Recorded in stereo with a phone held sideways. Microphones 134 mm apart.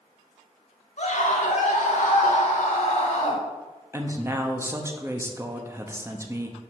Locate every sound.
1.0 s a scream: 65° left (ahead or behind), 2 m; by 3.4 s 45° left (ahead or behind), 1.7 m
3.9 s a woman speaking: 20° right (ahead or behind), 1.0 m